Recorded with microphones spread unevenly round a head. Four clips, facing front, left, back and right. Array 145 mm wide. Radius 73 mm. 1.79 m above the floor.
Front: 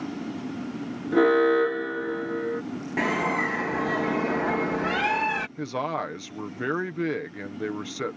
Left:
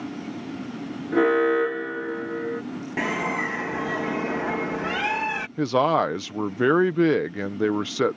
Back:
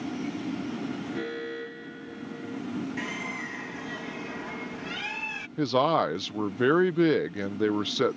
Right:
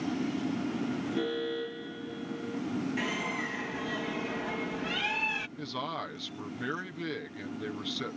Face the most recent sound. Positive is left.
turn(degrees=120)